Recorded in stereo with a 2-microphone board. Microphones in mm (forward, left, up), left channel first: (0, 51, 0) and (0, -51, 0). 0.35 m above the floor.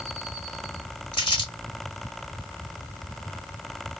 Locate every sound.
1.1 s crumpling: 50° left (ahead or behind), 1.3 m